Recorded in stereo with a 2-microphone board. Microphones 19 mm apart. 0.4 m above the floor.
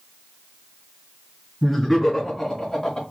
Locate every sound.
1.6 s laughter: 15° left (ahead or behind), 2.5 m; by 3.0 s 40° left (ahead or behind), 3 m